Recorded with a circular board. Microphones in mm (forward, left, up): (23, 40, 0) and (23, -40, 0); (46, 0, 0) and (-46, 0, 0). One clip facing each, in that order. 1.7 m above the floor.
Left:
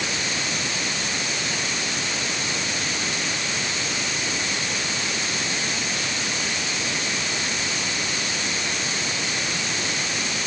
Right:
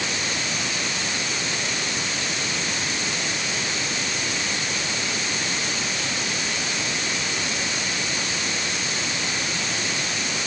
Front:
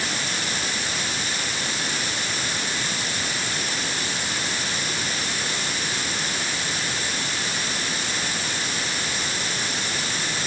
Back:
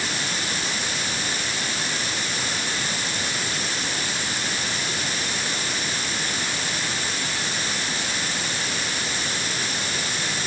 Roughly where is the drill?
No drill in this recording.